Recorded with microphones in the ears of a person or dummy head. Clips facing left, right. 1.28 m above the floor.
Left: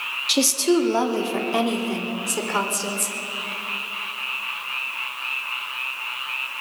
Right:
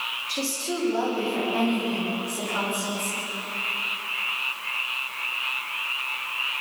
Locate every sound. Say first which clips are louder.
0.3 s a woman speaking: left 11 dB; 85° left, 2.5 m; by 3.1 s 80° left, 5 m